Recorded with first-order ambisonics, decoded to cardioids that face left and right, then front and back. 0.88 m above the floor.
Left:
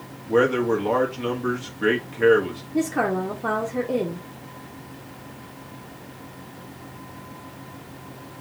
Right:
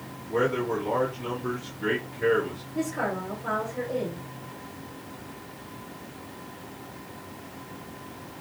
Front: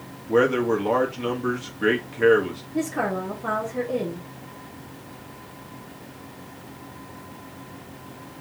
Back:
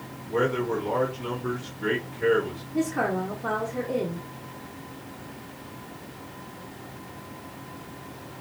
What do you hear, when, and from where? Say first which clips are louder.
0.3 s a man speaking: left 6 dB, front 5 dB; 40° left, 1.4 m
2.7 s a woman speaking: left 6 dB, even; 90° left, 1.1 m